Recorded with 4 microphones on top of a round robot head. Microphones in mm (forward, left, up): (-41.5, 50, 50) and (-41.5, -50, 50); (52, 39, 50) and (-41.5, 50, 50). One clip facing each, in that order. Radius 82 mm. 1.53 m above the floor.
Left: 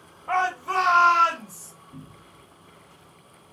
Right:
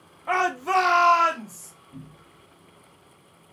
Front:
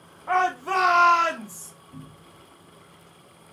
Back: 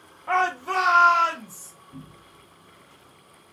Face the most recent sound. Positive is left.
turn(degrees=35)